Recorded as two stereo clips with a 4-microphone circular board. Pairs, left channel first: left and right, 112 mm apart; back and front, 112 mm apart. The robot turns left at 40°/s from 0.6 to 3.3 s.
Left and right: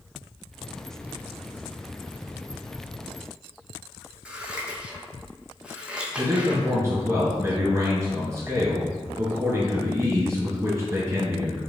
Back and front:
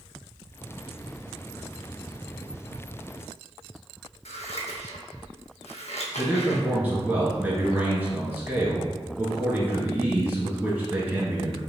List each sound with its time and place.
4.2 s scissors: 170° right, 0.8 m
6.2 s a man speaking: 60° right, 1.4 m